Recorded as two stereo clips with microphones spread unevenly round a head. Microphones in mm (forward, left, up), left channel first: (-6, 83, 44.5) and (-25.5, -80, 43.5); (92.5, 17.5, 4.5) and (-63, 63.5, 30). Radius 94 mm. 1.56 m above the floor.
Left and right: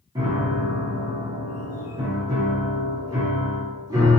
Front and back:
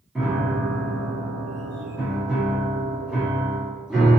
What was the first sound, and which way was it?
A piano, 135° right.